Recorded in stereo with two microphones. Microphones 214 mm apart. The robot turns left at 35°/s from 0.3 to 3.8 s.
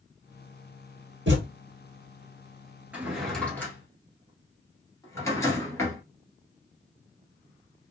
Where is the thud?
65° right (ahead or behind), 1.5 m.